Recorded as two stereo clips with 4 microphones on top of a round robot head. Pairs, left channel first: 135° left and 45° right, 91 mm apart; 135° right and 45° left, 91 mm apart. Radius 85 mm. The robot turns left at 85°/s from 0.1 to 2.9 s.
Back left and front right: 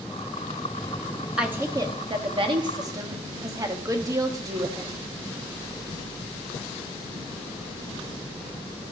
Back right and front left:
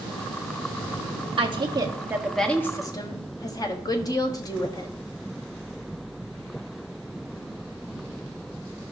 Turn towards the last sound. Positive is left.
turn(degrees=-95)